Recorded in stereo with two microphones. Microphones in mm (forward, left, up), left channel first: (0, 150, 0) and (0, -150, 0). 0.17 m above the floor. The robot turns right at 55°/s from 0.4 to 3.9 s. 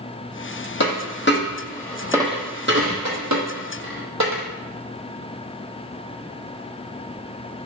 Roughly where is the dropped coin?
Left.